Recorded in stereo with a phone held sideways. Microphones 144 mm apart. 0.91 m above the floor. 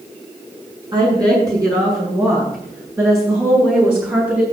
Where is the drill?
No drill in this recording.